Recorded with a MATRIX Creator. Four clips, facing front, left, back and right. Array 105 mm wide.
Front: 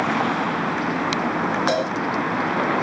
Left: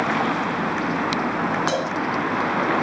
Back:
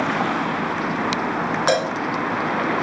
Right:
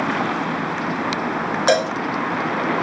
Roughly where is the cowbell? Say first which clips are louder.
Right 6 dB, back 2 dB; right.